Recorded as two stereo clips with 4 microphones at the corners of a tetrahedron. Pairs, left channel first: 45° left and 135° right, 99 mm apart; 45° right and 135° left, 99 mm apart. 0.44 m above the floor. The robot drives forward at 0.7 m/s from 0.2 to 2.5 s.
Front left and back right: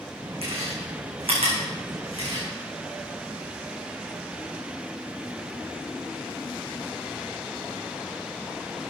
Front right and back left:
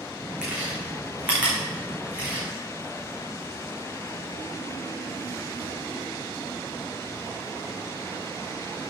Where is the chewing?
145° right, 5.5 m; by 2.5 s 150° right, 6.5 m.